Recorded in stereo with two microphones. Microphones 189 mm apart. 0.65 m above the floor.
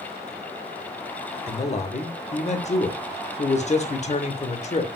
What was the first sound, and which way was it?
A man speaking, 35° left (ahead or behind).